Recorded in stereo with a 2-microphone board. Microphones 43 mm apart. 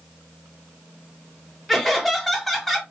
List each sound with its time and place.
1.7 s laughter: 5° left (ahead or behind), 1.0 m